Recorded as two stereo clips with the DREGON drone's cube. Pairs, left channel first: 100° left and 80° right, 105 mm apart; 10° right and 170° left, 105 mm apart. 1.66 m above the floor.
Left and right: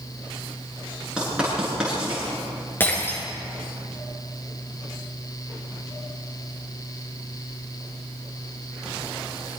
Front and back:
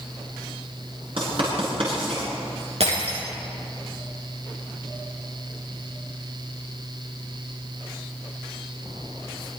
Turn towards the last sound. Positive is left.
turn(degrees=170)